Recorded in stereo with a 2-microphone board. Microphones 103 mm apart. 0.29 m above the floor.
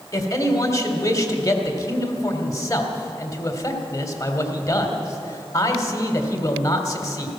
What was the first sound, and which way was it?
A man speaking, 30° left (ahead or behind).